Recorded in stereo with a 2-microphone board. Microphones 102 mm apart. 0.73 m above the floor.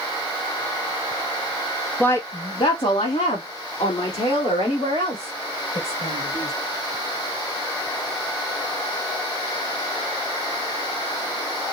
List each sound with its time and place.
2.0 s a woman speaking: 15° left (ahead or behind), 0.7 m; by 6.5 s 75° left (ahead or behind), 3.5 m